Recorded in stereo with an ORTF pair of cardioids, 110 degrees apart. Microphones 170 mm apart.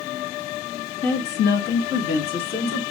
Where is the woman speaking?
70° left, 1.5 m; by 2.8 s 55° left, 2.5 m.